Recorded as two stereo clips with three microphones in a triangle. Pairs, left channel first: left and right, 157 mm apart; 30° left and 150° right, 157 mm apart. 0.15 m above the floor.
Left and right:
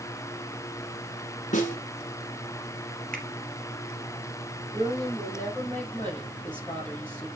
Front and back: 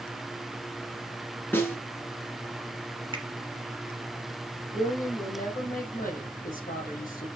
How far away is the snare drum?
About 1.9 m.